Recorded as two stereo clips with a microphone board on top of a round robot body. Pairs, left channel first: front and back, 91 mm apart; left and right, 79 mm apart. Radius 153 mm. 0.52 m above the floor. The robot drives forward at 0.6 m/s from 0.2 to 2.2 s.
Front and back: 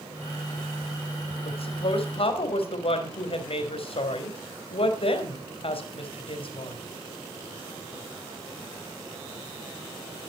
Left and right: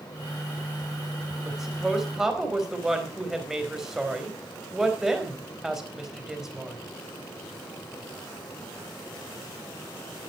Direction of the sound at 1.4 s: 5° right.